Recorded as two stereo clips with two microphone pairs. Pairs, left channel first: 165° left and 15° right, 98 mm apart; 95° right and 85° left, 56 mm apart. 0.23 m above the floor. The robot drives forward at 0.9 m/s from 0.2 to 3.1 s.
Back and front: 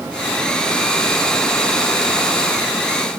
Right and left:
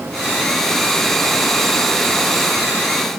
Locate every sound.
Only background noise.